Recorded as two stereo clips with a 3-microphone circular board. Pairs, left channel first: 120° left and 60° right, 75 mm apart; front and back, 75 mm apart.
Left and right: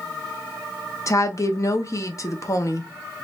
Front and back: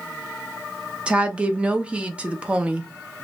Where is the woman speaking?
115° left, 0.8 m.